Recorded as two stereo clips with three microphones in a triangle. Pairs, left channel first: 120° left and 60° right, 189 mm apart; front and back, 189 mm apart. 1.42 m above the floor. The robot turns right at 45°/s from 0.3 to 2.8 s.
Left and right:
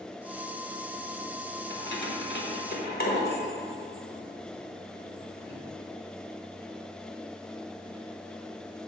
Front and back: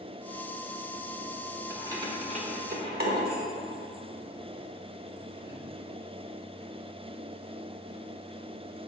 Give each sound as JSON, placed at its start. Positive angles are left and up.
{"t": 1.7, "sound": "keys jangling", "azimuth_deg": 100, "distance_m": 1.2}